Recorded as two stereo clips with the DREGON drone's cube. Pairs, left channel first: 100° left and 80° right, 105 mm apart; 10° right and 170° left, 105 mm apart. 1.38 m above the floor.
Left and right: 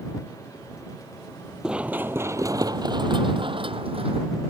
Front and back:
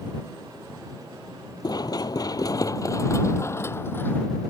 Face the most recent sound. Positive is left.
turn(degrees=-80)